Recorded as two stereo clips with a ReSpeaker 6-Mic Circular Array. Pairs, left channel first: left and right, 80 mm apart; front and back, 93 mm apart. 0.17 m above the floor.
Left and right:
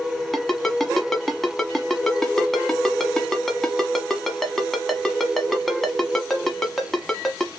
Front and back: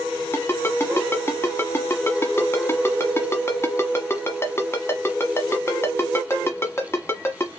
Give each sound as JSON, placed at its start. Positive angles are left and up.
{"t": 0.3, "sound": "a ringtone", "azimuth_deg": 10, "distance_m": 1.1}